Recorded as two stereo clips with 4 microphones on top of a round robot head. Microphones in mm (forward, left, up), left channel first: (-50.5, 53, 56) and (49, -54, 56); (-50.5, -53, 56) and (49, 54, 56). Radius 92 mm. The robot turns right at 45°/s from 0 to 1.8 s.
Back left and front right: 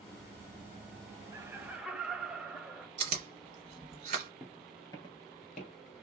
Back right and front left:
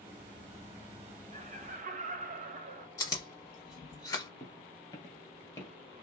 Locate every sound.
1.3 s laughter: 20° left, 1.0 m; by 2.9 s 40° left, 1.0 m
3.0 s chewing: 75° right, 0.9 m
4.4 s footsteps: 110° right, 0.9 m; by 5.7 s 155° left, 1.2 m